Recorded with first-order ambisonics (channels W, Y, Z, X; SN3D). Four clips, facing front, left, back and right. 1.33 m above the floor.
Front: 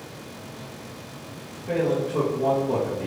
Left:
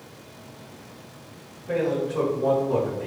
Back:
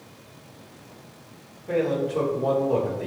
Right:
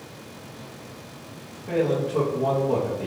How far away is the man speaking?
About 1.4 m.